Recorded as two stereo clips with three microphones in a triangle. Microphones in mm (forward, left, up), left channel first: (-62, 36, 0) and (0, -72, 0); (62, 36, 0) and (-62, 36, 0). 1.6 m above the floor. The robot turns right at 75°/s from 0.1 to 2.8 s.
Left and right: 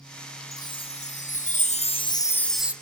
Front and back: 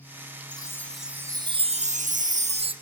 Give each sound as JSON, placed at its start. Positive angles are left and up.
{"t": 0.5, "sound": "a chime", "azimuth_deg": 55, "distance_m": 1.1}